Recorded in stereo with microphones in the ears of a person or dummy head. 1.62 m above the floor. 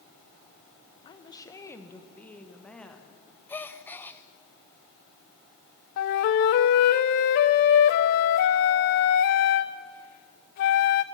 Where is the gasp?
5° left (ahead or behind), 0.5 m.